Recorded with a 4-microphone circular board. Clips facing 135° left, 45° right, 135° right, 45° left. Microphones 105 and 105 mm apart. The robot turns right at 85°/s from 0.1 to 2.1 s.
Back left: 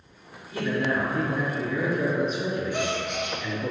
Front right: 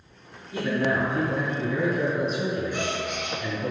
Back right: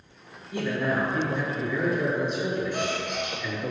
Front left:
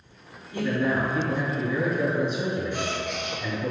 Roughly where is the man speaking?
Right.